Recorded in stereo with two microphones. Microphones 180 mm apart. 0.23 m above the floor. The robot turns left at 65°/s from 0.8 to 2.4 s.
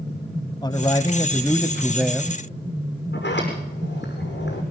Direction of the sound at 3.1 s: 80° left.